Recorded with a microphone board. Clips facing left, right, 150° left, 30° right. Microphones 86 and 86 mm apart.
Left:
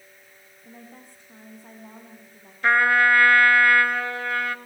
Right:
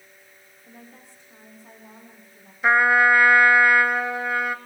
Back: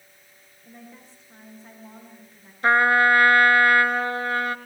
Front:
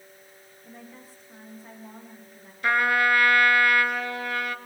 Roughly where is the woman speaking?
Ahead left.